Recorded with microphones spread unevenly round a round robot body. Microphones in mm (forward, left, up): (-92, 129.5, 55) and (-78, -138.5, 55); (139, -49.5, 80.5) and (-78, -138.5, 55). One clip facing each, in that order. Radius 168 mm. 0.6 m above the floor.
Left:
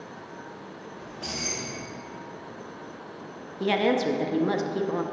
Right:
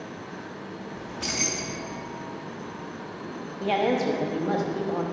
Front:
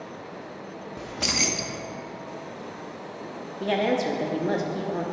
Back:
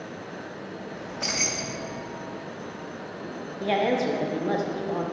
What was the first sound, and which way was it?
Keys jangling, 30° right.